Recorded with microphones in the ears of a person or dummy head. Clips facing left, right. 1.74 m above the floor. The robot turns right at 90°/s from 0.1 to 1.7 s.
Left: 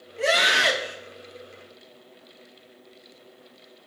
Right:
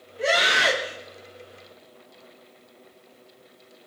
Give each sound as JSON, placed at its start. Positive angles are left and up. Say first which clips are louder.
{"t": 0.2, "sound": "a scream", "louder": "even", "azimuth_deg": 125, "distance_m": 3.5}